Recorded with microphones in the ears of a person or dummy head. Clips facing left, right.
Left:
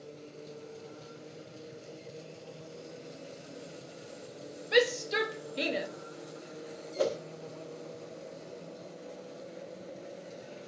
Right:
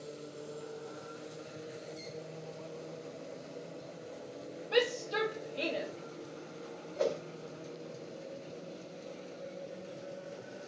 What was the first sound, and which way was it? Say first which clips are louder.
A shout: left 4 dB; 30° left (ahead or behind).